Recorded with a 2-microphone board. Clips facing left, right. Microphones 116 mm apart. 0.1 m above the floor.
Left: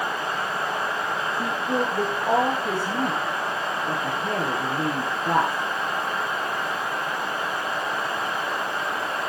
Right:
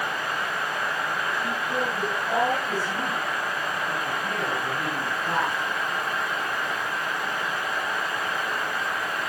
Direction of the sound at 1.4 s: 65° left (ahead or behind).